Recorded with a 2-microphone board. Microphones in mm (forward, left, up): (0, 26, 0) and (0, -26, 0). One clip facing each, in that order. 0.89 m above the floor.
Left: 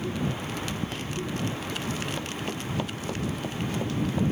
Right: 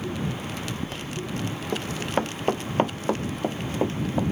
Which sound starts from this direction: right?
Running footsteps, at 1.7 s.